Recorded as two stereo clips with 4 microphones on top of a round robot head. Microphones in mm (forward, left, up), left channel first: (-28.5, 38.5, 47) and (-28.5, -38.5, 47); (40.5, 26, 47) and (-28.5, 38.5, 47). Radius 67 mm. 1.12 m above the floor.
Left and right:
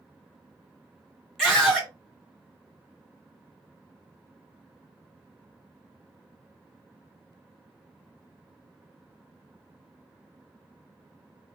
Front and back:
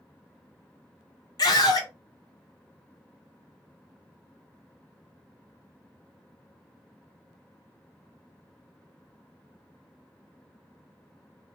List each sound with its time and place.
1.4 s a scream: 5° left, 1.5 m